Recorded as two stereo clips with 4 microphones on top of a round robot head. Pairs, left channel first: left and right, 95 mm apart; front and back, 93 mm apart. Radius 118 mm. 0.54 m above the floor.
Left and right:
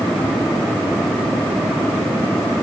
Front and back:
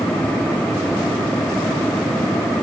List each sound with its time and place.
Only background noise.